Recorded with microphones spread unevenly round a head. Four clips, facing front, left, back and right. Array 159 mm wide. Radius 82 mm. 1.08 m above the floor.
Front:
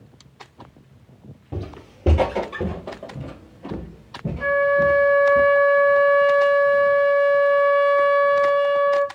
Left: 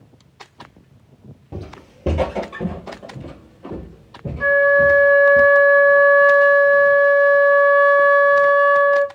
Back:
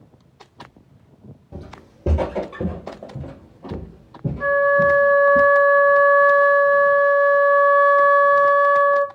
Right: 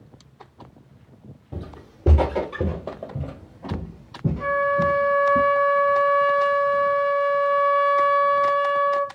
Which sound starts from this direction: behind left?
A flute, at 4.4 s.